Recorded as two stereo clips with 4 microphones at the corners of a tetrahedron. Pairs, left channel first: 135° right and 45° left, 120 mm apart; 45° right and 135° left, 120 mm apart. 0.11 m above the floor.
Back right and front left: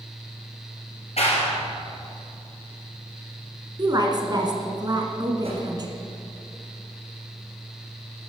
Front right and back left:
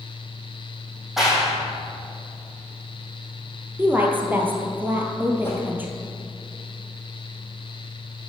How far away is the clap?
About 3 m.